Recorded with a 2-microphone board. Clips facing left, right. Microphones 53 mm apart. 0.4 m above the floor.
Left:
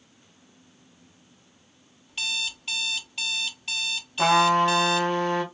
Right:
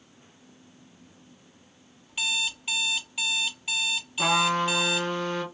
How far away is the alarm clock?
About 0.6 m.